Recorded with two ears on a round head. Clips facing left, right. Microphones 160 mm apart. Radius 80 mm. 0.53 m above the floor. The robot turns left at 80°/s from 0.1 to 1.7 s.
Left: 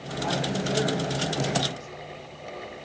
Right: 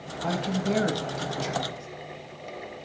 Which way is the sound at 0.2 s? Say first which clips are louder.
Right 1 dB; 60° right.